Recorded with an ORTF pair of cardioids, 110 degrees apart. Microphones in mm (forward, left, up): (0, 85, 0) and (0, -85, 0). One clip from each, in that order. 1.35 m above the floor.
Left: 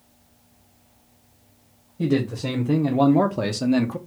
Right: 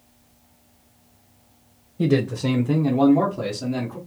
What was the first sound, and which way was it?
A man speaking, 20° right.